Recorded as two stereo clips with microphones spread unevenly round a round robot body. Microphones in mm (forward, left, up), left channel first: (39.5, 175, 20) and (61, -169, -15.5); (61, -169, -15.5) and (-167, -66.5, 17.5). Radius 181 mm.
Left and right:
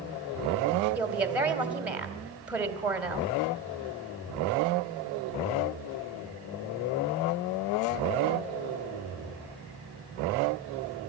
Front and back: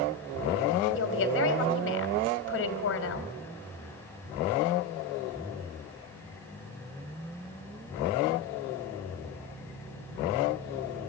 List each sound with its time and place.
0.9 s a woman speaking: 5° right, 2.5 m